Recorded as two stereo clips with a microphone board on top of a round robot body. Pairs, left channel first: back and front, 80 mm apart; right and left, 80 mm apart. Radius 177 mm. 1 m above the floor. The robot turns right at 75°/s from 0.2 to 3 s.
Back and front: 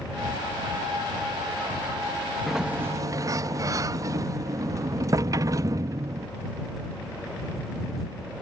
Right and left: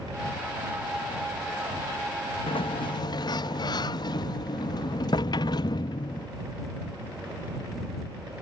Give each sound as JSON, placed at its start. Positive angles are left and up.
{"t": 2.5, "sound": "a sliding door", "azimuth_deg": -95}